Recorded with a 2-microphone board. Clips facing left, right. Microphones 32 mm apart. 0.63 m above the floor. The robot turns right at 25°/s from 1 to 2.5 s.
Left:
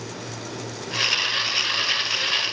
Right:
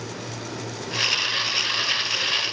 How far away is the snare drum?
No snare drum in this recording.